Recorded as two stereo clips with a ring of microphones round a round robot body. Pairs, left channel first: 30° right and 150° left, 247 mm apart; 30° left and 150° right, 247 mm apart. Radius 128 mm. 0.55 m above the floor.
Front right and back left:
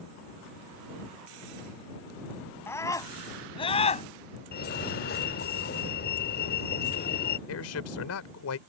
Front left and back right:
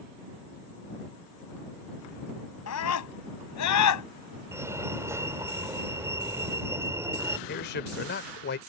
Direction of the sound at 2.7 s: 50° left.